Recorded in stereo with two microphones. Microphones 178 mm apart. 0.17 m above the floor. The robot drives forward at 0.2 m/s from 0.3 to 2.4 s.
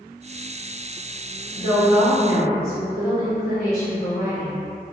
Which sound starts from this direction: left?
A woman speaking, at 1.6 s.